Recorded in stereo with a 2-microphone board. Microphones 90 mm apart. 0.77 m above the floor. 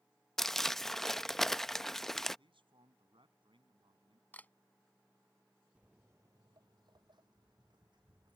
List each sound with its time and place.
0.4 s crumpling: 5° left (ahead or behind)
2.4 s a man speaking: 80° right
4.3 s a camera shutter: 20° left (ahead or behind)
5.8 s footsteps: 10° right (ahead or behind); by 8.4 s 60° right (ahead or behind)